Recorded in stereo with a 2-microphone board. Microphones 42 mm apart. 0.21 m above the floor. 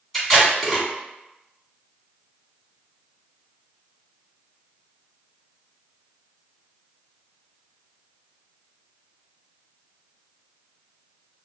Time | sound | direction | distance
0.1 | tape being pulled | 5° left (ahead or behind) | 2 m